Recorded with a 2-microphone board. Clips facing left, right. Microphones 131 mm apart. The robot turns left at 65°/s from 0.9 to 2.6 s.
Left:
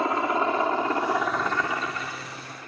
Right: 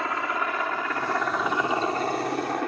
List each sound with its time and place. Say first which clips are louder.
0.0 s a helicopter: left 4 dB; 25° left (ahead or behind); by 2.7 s 70° right (ahead or behind)